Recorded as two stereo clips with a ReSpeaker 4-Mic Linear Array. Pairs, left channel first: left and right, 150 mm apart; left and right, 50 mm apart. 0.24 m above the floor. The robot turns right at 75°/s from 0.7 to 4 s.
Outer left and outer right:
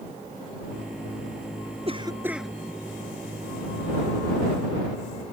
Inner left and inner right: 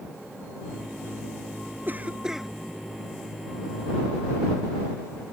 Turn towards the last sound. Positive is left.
turn(degrees=115)